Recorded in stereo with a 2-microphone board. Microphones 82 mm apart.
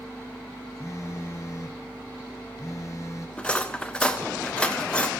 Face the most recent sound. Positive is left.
turn(degrees=15)  # may be behind; listen again after turning